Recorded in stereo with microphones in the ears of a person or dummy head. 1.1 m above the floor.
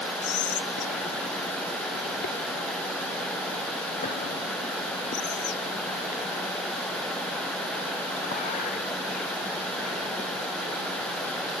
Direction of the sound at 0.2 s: 35° left (ahead or behind).